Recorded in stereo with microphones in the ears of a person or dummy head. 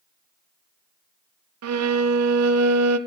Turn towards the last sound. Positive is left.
turn(degrees=-85)